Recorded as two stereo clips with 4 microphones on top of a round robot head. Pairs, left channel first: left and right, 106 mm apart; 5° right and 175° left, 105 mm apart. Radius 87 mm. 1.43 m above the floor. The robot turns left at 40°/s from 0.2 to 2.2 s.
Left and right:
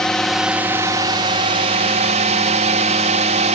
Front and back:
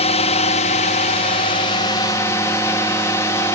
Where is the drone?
5° left; by 3.5 s 75° right.